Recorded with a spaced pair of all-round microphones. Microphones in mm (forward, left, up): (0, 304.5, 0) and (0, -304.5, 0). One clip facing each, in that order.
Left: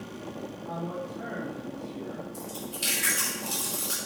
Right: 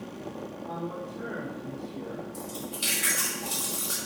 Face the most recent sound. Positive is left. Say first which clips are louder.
# right 1 dB
turn(degrees=-25)  # may be behind; listen again after turning